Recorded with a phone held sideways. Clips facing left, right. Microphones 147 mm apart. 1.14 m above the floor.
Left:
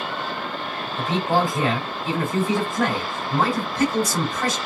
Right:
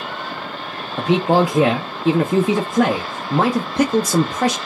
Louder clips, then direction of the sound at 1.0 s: Right 6 dB; 80° right.